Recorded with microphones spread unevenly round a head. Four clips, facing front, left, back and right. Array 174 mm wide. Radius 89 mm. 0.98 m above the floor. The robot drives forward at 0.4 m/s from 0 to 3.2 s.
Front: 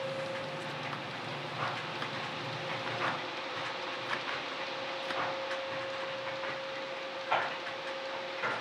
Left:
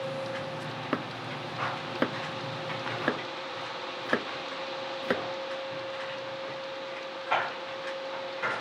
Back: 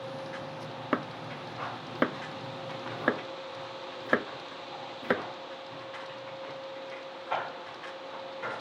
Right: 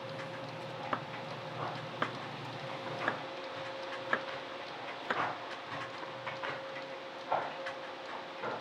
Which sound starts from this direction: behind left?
Chopping, at 0.9 s.